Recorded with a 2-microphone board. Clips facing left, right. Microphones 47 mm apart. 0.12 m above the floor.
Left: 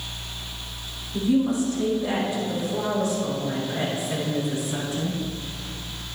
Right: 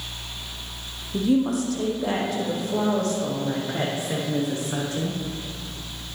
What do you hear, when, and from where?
1.1 s a woman speaking: 60° right (ahead or behind), 3.5 m; by 5.2 s 65° right (ahead or behind), 6 m